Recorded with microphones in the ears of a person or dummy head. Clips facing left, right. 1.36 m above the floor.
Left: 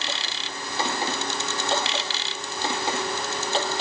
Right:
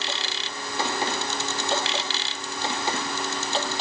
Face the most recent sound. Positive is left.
No sound to turn to.